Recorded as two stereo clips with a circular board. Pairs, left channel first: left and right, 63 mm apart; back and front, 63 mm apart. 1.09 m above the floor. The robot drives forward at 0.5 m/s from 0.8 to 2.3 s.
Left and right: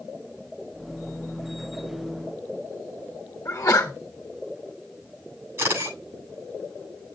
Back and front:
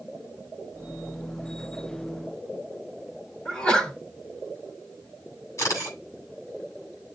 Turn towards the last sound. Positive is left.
turn(degrees=-145)